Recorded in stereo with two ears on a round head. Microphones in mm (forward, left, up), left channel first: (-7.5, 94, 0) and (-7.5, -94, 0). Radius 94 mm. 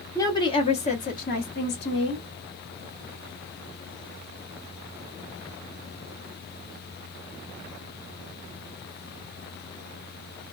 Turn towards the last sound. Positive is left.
turn(degrees=60)  # may be behind; listen again after turning